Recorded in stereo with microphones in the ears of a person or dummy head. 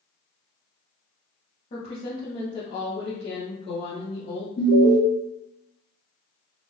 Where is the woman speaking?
30° left (ahead or behind), 0.7 m.